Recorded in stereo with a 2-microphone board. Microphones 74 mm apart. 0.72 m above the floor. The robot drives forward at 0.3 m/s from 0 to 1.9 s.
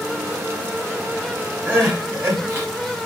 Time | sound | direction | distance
1.7 | crying | 30° right (ahead or behind) | 1.2 m